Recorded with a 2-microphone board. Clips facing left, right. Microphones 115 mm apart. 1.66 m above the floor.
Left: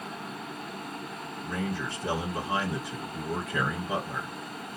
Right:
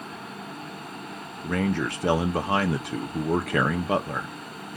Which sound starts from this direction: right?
A man speaking, at 1.4 s.